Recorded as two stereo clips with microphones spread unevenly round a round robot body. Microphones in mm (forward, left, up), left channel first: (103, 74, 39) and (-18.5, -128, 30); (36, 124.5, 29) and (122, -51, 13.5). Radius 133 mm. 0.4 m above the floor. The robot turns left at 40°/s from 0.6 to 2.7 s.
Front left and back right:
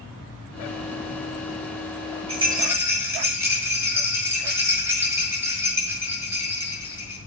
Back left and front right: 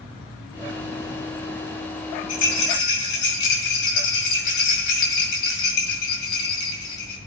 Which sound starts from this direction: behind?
A rattle, at 2.3 s.